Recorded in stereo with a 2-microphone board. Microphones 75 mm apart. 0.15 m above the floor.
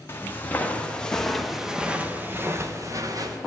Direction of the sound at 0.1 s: 30° left (ahead or behind).